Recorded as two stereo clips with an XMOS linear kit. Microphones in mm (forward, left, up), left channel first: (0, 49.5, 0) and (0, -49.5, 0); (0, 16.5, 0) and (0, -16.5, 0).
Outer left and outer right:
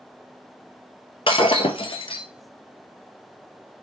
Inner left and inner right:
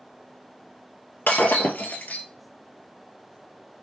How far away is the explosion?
I don't hear an explosion.